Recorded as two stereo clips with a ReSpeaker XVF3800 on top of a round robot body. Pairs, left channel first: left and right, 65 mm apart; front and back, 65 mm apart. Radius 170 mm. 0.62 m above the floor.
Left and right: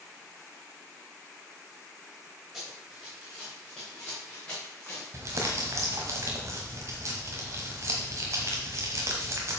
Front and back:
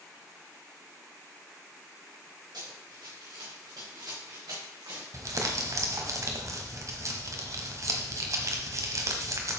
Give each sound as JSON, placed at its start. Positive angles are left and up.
{"t": 2.5, "sound": "running footsteps", "azimuth_deg": 180, "distance_m": 6.0}
{"t": 5.1, "sound": "crumpling", "azimuth_deg": -140, "distance_m": 1.2}